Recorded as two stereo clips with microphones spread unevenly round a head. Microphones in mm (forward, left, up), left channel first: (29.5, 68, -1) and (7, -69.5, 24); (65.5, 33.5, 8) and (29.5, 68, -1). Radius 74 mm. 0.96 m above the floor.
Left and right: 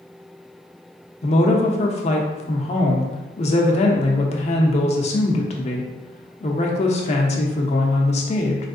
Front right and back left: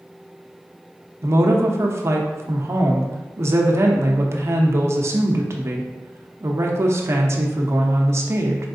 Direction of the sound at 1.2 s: 120° left.